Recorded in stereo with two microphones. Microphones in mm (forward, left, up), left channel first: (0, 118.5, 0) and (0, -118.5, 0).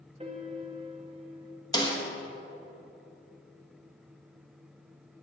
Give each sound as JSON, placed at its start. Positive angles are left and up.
{"t": 0.2, "sound": "a piano", "side_deg": -25, "distance_m": 0.6}
{"t": 1.7, "sound": "a snare drum", "side_deg": 15, "distance_m": 0.8}